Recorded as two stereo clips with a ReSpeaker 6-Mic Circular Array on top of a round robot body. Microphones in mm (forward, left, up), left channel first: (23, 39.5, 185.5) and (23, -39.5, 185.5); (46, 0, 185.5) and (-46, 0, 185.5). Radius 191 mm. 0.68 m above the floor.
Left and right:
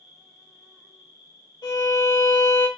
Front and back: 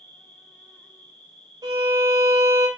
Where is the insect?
80° right, 1.9 m.